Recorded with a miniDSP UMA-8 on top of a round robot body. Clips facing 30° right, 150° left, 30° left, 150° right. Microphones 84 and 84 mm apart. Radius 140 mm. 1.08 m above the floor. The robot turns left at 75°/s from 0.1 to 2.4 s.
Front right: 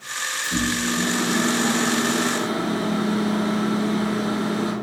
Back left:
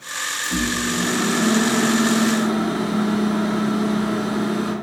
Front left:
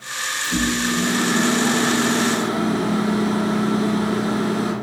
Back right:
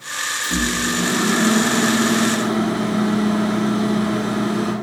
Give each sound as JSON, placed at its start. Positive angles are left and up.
{"t": 0.4, "sound": "a microwave", "azimuth_deg": -135, "distance_m": 1.1}